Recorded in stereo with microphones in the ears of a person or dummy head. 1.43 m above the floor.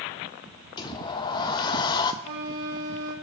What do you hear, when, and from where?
0.8 s a sliding door: 25° left (ahead or behind), 1.0 m
2.2 s a flute: 70° right (ahead or behind), 3 m